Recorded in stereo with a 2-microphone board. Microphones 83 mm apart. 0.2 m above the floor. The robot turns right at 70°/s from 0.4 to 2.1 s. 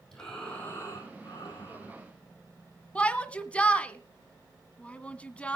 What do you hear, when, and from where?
0.1 s breathing: 5° left, 6.5 m; by 1.9 s 115° left, 6.5 m
3.0 s a shout: 15° left (ahead or behind), 1.4 m